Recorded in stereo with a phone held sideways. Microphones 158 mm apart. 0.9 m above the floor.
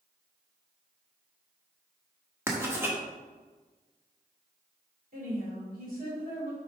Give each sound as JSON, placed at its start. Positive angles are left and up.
{"t": 2.5, "sound": "writing", "side_deg": -15, "distance_m": 1.2}
{"t": 5.1, "sound": "a woman speaking", "side_deg": -70, "distance_m": 3.0}